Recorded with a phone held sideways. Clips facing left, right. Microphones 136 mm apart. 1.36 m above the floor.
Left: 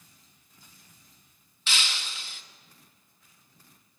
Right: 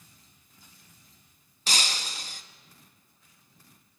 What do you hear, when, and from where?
1.7 s breaking glass: 40° right (ahead or behind), 0.8 m